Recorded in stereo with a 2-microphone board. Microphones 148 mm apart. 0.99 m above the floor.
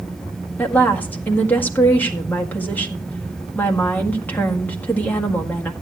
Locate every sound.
0.6 s a woman speaking: 10° left (ahead or behind), 1.8 m